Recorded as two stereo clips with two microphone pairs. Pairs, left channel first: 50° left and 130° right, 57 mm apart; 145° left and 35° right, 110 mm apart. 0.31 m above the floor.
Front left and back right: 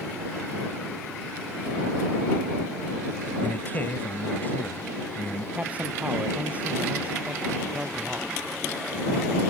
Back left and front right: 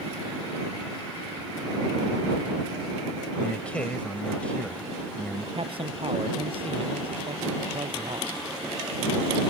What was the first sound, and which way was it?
A man speaking, 75° left.